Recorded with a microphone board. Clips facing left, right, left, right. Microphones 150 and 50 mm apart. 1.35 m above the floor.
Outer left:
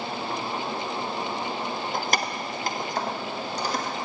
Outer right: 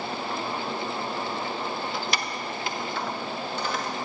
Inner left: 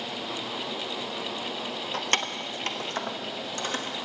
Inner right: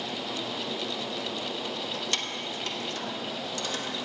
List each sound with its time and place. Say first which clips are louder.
1.9 s keys jangling: outer left 3 dB, inner left 4 dB; 45° left (ahead or behind), 0.6 m; by 3.9 s 35° left (ahead or behind), 1.5 m